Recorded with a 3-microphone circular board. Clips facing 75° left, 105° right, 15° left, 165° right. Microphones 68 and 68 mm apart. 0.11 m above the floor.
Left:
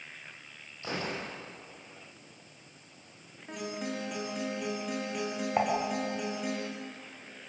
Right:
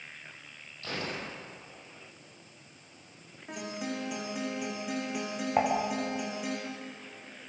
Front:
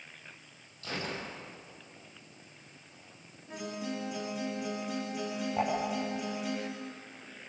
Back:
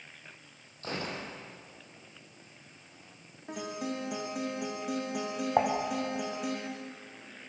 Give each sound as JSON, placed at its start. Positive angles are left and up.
{"t": 0.8, "sound": "a gunshot", "azimuth_deg": 140, "distance_m": 4.5}
{"t": 3.5, "sound": "a guitar", "azimuth_deg": 170, "distance_m": 6.5}
{"t": 5.6, "sound": "dishes clattering", "azimuth_deg": 170, "distance_m": 6.0}